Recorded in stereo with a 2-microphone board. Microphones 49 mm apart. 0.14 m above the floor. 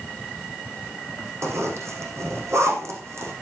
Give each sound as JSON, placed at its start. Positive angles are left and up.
{"t": 1.4, "sound": "a zipper", "side_deg": -70, "distance_m": 5.0}